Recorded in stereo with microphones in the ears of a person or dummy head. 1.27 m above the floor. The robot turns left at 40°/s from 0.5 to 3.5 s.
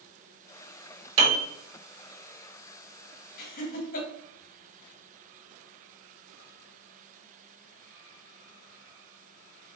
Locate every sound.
1.2 s a piano: 30° right (ahead or behind), 1.1 m; by 1.4 s 40° right (ahead or behind), 1.1 m
3.4 s laughter: 55° left (ahead or behind), 1.2 m; by 4.1 s 50° left (ahead or behind), 1.2 m